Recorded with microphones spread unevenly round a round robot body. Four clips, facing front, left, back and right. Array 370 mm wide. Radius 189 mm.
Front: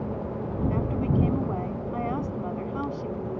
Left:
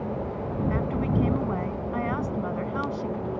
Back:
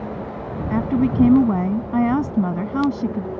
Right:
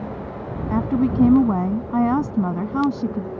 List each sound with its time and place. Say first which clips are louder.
0.7 s a woman speaking: right 10 dB, back 10 dB; 140° right